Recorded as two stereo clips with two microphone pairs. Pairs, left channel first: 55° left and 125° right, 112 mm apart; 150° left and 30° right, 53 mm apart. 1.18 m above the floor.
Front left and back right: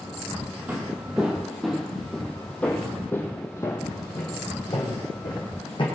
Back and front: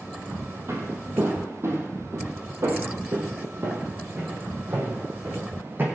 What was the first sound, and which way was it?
Footsteps, 50° right.